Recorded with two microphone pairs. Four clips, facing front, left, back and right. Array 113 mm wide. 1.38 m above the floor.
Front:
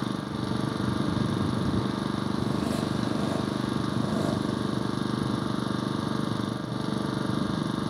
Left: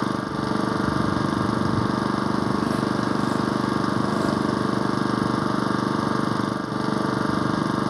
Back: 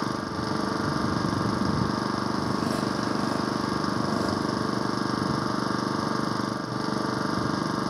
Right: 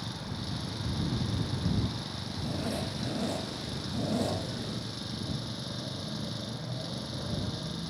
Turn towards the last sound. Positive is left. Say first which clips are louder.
# left 15 dB, back 2 dB
turn(degrees=110)